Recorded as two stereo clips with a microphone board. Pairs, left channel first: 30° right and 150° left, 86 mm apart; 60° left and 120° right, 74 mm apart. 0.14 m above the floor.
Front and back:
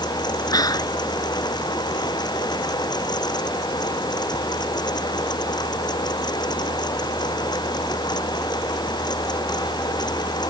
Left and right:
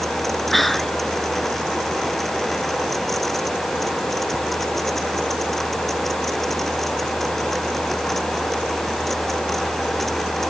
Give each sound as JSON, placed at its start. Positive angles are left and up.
{"t": 0.5, "sound": "whispering", "azimuth_deg": -25}